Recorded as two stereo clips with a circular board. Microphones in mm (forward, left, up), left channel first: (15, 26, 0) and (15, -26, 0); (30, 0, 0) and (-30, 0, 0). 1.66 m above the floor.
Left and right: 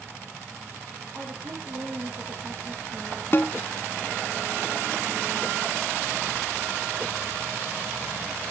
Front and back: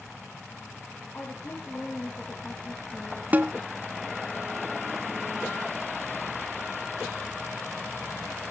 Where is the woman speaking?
55° right, 3 m.